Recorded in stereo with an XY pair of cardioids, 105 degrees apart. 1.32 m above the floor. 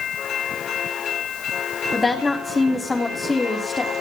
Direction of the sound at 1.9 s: 20° left.